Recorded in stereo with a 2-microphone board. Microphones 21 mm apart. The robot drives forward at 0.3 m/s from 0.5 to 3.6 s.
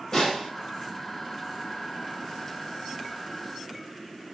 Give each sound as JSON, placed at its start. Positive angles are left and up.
{"t": 0.1, "sound": "a snare drum", "side_deg": 25, "distance_m": 3.5}